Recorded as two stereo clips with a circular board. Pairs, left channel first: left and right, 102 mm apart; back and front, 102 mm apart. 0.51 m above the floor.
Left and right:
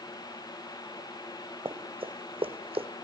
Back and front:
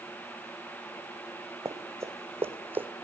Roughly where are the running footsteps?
Ahead right.